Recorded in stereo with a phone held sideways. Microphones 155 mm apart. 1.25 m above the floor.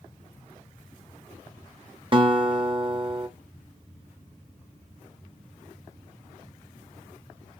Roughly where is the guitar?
Right.